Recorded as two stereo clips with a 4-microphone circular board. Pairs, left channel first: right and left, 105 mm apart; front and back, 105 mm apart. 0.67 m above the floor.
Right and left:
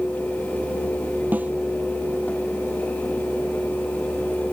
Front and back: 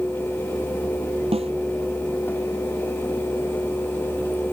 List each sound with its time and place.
1.3 s a snare drum: 165° left